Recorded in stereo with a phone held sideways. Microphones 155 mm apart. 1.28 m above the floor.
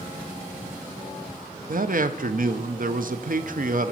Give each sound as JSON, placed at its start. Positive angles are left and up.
{"t": 1.7, "sound": "a man speaking", "side_deg": -65, "distance_m": 0.6}